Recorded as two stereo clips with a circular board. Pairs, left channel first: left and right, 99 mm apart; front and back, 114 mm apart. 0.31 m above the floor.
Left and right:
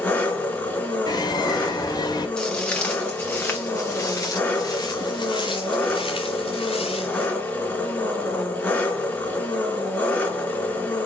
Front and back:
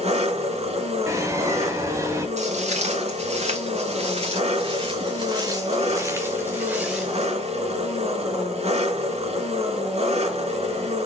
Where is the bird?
120° left, 2 m.